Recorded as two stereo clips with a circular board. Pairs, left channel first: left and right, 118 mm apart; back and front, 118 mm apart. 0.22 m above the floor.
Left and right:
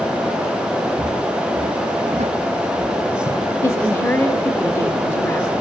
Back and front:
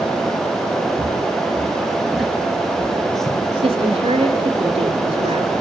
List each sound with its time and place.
1.0 s footsteps: 70° right, 2 m; by 3.4 s 105° right, 2.5 m
3.6 s a woman speaking: 30° left, 2.5 m